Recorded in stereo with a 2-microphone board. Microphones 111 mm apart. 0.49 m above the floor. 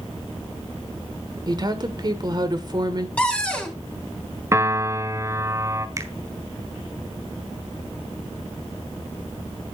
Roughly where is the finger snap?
Right.